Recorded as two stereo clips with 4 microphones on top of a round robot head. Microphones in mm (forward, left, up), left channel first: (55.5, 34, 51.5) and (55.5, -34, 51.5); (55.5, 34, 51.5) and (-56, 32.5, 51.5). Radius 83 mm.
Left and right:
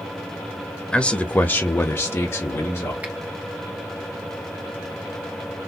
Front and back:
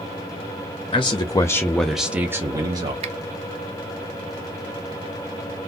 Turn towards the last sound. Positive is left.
turn(degrees=-160)